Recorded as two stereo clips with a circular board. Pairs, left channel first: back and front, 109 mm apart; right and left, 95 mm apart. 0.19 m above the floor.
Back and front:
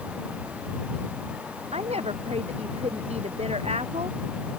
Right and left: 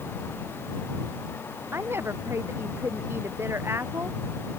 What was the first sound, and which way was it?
A woman speaking, 25° left.